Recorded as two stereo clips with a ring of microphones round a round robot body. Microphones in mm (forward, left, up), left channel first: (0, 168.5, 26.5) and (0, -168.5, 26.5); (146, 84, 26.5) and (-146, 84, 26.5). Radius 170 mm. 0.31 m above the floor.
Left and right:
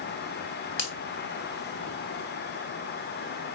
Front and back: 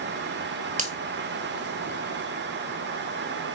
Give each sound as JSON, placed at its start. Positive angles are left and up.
{"t": 0.8, "sound": "a finger snap", "azimuth_deg": 125, "distance_m": 1.6}